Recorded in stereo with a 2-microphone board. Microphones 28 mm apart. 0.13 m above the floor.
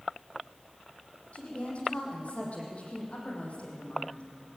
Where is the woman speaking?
55° left (ahead or behind), 5.5 m.